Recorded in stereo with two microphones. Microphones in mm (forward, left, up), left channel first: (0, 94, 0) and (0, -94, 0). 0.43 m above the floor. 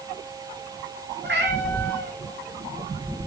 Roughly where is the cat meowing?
Right.